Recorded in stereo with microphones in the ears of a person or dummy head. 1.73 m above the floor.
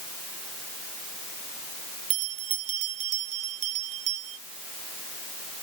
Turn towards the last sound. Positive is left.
turn(degrees=-40)  # may be behind; listen again after turning